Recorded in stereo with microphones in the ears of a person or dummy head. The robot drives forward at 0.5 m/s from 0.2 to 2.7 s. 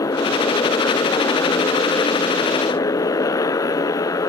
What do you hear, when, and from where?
0.0 s a motorcycle: 20° left (ahead or behind)